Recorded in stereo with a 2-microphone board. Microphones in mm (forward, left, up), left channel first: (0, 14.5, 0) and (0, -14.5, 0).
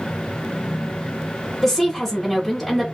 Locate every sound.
1.6 s a woman speaking: centre (ahead or behind), 1.0 m